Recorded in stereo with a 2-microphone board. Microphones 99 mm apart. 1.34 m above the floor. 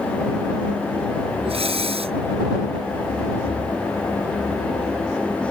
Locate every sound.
1.4 s breathing: 75° right (ahead or behind)